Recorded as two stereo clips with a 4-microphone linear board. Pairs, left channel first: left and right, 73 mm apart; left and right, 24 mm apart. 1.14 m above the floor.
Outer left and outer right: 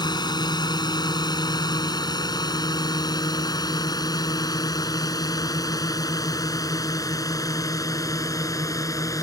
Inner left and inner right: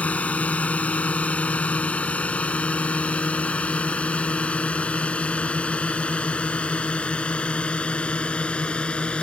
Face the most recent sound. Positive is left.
turn(degrees=45)  # may be behind; listen again after turning